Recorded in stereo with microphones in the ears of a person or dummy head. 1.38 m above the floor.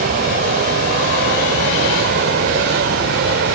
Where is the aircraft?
45° right (ahead or behind); by 3.6 s 55° right (ahead or behind).